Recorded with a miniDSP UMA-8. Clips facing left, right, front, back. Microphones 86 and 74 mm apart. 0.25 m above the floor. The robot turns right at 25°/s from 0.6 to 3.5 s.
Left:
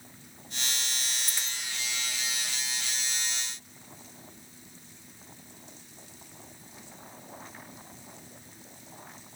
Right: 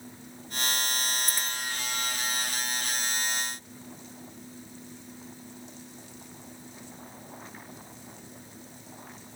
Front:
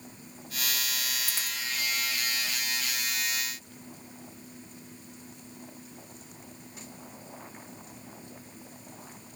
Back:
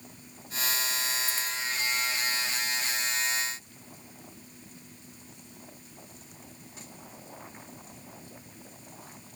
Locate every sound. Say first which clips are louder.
1.3 s a dropped coin: right 5 dB, back 3 dB; 15° right, 5 m; by 1.6 s 10° right, 5 m